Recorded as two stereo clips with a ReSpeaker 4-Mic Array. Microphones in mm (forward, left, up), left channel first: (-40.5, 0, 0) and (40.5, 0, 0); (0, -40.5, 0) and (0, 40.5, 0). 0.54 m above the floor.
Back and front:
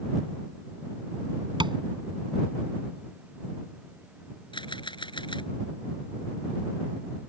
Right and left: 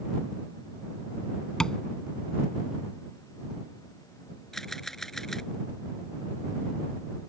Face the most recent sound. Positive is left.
turn(degrees=-175)